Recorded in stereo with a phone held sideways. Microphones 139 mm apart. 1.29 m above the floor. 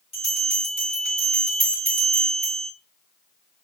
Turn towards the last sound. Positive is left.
turn(degrees=50)  # may be behind; listen again after turning